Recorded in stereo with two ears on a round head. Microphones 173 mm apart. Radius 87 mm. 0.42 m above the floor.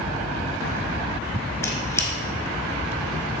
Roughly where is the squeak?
Centre.